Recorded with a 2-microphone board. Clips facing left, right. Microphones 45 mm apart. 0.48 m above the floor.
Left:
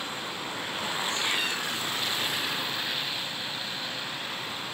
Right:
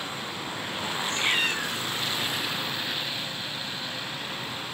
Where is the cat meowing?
45° right (ahead or behind), 1.5 m.